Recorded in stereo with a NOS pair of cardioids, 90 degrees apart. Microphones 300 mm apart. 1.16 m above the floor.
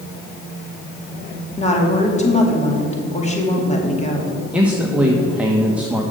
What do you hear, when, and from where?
1.6 s a woman speaking: 20° left, 2.5 m
4.5 s a man speaking: 5° right, 1.2 m